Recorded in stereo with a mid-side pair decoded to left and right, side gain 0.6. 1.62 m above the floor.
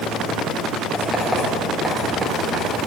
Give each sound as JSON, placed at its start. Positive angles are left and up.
{"t": 0.9, "sound": "writing", "azimuth_deg": -5, "distance_m": 4.0}